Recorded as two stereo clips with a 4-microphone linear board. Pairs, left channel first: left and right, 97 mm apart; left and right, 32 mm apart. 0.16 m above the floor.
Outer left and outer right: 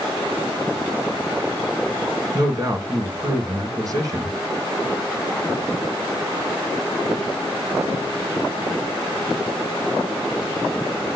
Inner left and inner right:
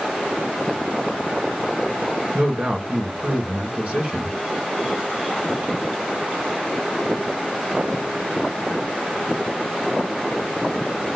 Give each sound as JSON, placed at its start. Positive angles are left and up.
{"t": 2.3, "sound": "a man speaking", "side_deg": -40, "distance_m": 2.5}